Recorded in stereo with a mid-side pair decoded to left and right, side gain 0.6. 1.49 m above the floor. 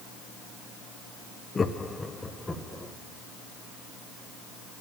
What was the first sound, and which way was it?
Laughter, 25° left.